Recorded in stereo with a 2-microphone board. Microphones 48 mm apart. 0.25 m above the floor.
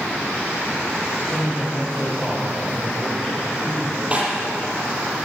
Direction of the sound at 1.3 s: 5° left (ahead or behind).